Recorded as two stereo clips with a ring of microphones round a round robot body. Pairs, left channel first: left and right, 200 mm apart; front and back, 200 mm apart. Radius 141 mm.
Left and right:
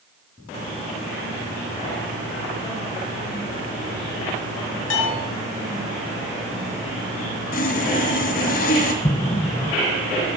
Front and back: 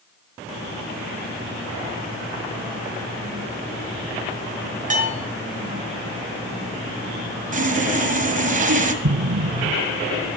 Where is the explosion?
150° left, 0.6 m.